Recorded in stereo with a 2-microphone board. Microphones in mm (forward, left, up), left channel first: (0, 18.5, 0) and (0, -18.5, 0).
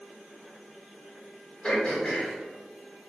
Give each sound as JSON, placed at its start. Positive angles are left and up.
{"t": 1.6, "sound": "throat clearing", "side_deg": 25, "distance_m": 1.7}